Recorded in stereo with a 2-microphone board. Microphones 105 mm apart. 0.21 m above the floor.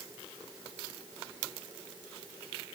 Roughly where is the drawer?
I don't hear a drawer.